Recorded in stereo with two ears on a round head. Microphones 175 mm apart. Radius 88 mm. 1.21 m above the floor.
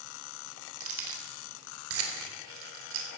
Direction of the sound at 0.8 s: 75° right (ahead or behind).